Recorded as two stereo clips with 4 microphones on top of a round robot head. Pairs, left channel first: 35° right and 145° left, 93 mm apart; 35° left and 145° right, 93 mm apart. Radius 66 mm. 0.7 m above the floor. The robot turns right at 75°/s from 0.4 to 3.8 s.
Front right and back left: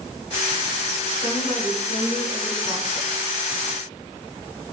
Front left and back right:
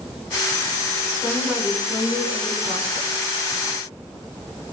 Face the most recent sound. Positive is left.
turn(degrees=-55)